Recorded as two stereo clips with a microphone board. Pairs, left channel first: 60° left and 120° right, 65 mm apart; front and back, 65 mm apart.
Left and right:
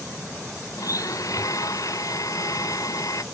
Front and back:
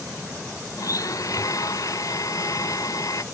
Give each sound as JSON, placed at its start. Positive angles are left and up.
{"t": 0.8, "sound": "a blender", "azimuth_deg": 30}